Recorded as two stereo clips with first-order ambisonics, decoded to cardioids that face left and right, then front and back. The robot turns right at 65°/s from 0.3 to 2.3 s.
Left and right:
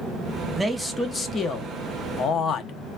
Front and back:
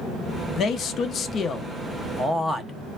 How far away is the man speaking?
About 0.6 m.